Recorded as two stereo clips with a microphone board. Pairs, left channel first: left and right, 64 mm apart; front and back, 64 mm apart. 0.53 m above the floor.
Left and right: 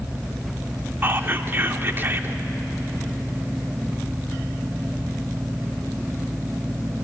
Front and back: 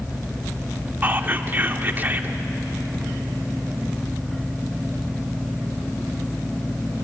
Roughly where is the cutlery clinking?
No cutlery clinking in this recording.